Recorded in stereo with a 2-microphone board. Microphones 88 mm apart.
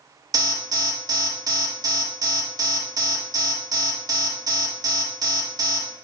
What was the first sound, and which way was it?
An alarm, 45° right (ahead or behind).